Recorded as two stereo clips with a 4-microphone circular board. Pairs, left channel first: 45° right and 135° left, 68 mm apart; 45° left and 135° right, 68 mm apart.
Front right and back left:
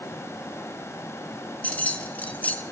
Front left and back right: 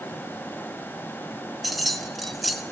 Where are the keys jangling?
45° right, 0.8 m.